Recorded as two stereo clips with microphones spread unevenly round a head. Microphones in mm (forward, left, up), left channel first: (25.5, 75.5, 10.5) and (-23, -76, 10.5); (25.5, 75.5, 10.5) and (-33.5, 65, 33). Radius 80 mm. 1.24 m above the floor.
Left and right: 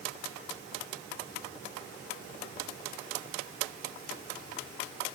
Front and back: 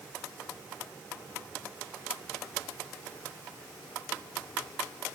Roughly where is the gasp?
No gasp in this recording.